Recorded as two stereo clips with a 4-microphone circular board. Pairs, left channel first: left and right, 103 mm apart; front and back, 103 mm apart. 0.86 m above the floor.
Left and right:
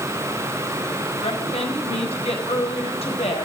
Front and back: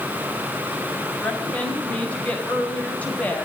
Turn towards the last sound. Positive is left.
turn(degrees=75)